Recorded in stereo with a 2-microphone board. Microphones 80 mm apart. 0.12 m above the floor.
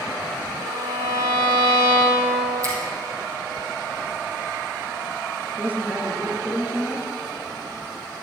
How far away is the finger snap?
About 3 m.